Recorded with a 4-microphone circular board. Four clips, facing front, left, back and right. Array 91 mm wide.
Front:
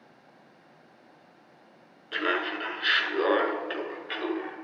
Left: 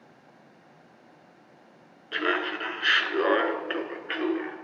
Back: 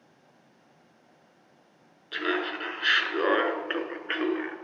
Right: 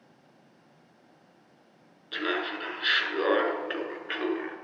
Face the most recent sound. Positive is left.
turn(degrees=175)